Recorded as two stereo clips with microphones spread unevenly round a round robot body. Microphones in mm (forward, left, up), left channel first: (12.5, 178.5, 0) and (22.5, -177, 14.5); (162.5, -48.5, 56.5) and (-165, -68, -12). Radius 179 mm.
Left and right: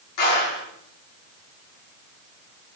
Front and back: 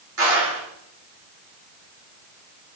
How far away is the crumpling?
No crumpling in this recording.